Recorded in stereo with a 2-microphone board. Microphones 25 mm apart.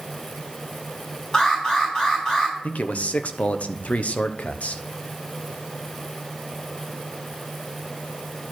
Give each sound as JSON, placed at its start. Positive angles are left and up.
{"t": 1.3, "sound": "an alarm", "side_deg": 35, "distance_m": 5.5}
{"t": 2.6, "sound": "a man speaking", "side_deg": 70, "distance_m": 0.8}